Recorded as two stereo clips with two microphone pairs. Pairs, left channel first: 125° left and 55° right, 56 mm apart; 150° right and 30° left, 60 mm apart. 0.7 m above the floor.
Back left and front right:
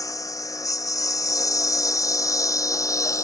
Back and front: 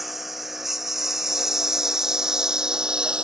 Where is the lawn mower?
115° left; by 3.2 s 105° left.